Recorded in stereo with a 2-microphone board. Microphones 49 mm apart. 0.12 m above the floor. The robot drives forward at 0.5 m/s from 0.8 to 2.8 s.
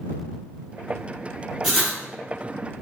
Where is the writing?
5° right (ahead or behind), 1.7 m.